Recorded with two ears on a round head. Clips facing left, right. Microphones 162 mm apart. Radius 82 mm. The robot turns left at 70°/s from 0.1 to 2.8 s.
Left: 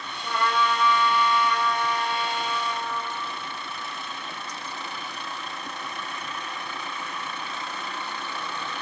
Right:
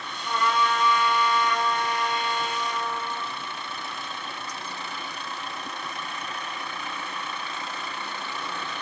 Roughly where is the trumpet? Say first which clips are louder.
Even; ahead left.